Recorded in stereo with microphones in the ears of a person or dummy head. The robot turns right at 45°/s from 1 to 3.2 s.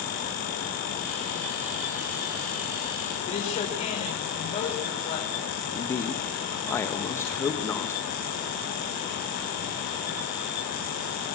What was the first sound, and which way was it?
A woman speaking, 30° left (ahead or behind).